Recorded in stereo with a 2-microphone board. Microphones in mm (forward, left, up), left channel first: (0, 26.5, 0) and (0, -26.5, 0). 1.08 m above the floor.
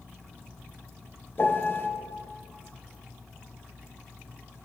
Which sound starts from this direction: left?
A piano, at 1.4 s.